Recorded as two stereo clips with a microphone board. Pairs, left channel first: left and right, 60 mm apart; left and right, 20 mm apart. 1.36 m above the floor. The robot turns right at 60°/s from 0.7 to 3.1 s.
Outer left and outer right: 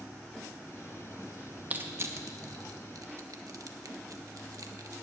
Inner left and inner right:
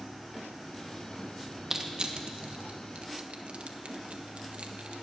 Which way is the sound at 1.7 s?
25° right (ahead or behind).